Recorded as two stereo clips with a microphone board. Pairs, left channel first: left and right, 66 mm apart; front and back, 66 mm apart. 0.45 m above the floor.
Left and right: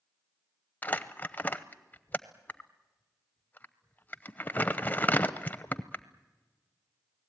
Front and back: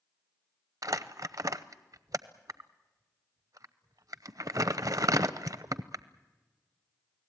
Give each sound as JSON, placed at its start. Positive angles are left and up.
{"t": 0.8, "sound": "crumpling", "azimuth_deg": 150, "distance_m": 0.7}